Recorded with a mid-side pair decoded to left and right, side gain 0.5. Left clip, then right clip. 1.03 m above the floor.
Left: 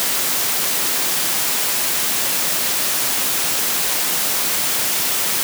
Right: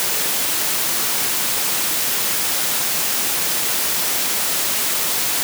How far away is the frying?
I don't hear frying.